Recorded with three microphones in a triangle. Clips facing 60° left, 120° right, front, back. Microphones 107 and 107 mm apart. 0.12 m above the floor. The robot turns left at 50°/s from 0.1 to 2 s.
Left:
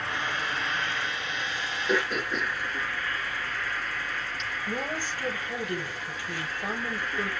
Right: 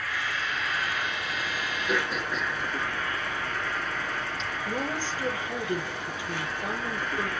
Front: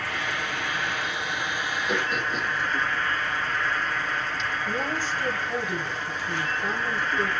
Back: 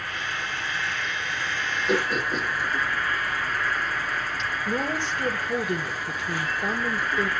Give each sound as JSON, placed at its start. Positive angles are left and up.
{"t": 0.0, "sound": "an insect", "azimuth_deg": -5, "distance_m": 1.7}
{"t": 1.9, "sound": "throat clearing", "azimuth_deg": 160, "distance_m": 2.5}
{"t": 4.7, "sound": "a woman speaking", "azimuth_deg": 175, "distance_m": 3.5}